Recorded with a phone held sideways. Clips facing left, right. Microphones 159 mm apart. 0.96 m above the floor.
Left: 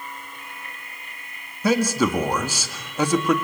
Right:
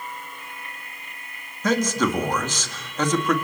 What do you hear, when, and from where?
1.6 s a man speaking: 10° left (ahead or behind), 1.9 m